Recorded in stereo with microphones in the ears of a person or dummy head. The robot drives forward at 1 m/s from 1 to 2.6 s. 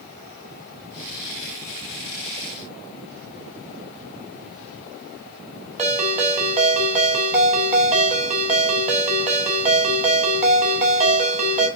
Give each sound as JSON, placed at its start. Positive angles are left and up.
{"t": 5.8, "sound": "a ringtone", "side_deg": -35, "distance_m": 2.5}